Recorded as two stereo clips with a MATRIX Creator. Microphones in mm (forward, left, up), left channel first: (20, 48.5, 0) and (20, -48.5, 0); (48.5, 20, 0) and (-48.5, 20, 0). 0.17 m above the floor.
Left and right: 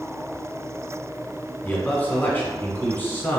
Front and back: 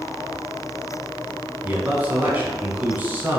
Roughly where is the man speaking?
Behind left.